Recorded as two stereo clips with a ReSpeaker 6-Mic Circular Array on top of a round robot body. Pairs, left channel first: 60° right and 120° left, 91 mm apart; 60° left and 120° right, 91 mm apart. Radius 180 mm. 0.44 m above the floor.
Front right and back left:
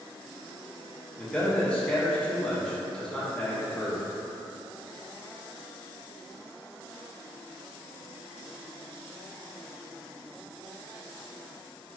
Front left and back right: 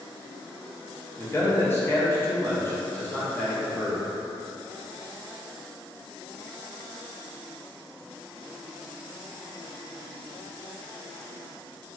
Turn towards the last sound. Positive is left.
turn(degrees=15)